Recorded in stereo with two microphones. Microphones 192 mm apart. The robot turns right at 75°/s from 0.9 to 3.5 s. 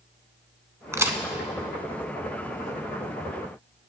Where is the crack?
15° right (ahead or behind), 0.7 m; by 1.2 s 10° right (ahead or behind), 0.7 m.